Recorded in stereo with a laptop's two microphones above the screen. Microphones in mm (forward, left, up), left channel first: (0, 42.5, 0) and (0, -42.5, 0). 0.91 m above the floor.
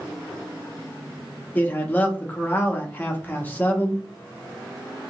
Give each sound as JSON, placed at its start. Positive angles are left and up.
{"t": 1.6, "sound": "a man speaking", "side_deg": 20, "distance_m": 0.8}